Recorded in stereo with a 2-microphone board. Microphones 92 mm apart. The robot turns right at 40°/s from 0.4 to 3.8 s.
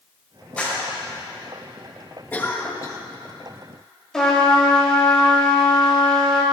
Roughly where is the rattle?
No rattle in this recording.